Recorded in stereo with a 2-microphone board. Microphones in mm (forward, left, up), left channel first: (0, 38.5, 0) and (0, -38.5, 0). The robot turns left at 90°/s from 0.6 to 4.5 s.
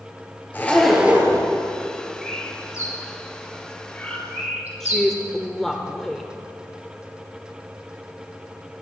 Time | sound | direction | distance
0.5 | a zipper | 25° left | 3 m
2.2 | a bird | 5° right (ahead or behind) | 3.5 m
4.8 | a woman speaking | 5° left (ahead or behind) | 1.0 m